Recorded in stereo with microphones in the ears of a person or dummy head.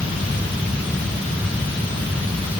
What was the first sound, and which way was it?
Only background noise.